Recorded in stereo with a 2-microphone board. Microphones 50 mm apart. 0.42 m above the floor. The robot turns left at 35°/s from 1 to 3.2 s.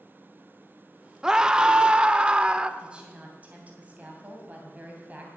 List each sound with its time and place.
1.2 s a scream: 15° right (ahead or behind), 0.7 m; by 2.7 s 20° right (ahead or behind), 0.7 m
2.8 s a woman speaking: 15° right (ahead or behind), 2.5 m; by 5.3 s 30° right (ahead or behind), 2.5 m